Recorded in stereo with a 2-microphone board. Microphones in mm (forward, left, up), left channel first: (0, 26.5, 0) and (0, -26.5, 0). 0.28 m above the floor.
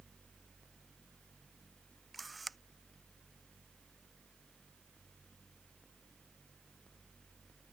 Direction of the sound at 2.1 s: Centre (ahead or behind).